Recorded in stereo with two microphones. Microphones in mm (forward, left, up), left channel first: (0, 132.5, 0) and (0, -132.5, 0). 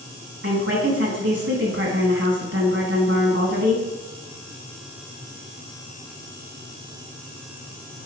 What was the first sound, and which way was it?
A woman speaking, 45° right (ahead or behind).